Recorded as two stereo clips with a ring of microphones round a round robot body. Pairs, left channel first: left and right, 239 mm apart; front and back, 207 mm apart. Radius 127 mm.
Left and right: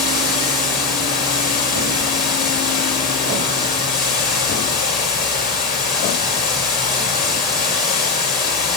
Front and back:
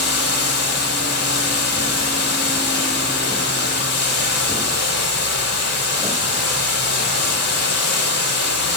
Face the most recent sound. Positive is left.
turn(degrees=35)